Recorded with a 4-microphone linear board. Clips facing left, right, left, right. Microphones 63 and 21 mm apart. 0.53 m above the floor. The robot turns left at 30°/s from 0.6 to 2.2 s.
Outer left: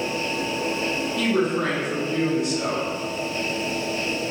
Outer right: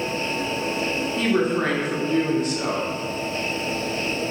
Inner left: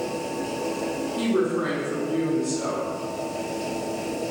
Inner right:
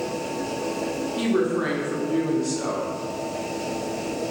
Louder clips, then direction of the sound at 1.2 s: Outer right 1 dB, inner right 1 dB; 55° right.